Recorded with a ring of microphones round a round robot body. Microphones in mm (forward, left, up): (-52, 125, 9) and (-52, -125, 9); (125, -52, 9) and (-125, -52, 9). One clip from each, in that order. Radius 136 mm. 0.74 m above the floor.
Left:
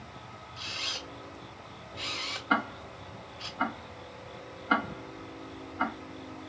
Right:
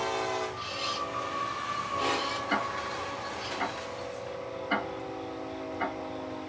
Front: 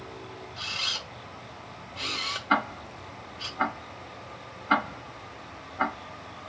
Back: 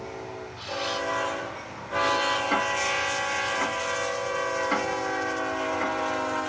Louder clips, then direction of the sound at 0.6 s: Right 2 dB, even; 30° left.